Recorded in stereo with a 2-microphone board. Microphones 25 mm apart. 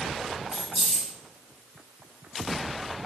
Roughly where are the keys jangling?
Right.